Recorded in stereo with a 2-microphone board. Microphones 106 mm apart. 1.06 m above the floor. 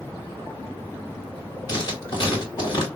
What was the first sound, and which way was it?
Writing, 45° left (ahead or behind).